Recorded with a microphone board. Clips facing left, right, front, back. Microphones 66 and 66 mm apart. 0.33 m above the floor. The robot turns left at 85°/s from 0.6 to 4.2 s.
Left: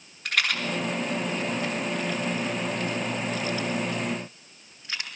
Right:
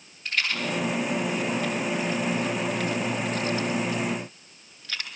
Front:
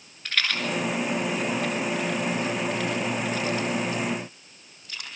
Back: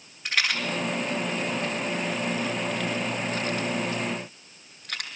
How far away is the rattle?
About 5.5 m.